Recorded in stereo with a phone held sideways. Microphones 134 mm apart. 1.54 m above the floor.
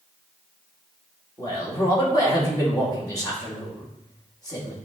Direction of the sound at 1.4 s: 30° left (ahead or behind).